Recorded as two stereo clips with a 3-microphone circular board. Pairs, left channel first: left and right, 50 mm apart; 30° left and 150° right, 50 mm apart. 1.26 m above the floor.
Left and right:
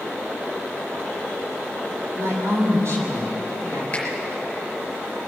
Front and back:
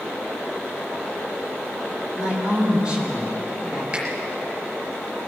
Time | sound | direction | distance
2.2 | a woman speaking | 80° right | 4 m
3.9 | a finger snap | 150° left | 4.5 m